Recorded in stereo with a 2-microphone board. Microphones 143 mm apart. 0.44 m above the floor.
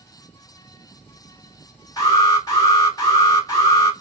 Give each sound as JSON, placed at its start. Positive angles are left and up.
{"t": 2.0, "sound": "an alarm", "side_deg": 25, "distance_m": 1.9}